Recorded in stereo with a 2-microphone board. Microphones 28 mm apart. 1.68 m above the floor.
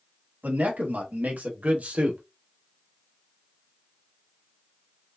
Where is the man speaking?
85° right, 1.7 m; by 2.2 s 50° right (ahead or behind), 1.4 m.